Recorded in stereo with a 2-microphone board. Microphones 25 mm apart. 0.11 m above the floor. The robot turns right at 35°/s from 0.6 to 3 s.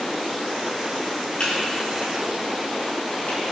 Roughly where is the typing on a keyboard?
Left.